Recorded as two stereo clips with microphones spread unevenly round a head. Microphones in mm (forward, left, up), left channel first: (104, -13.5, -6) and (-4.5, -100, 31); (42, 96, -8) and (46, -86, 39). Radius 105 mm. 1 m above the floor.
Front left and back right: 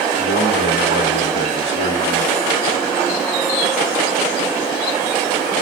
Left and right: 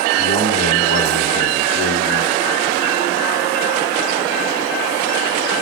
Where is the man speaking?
100° right, 1.8 m.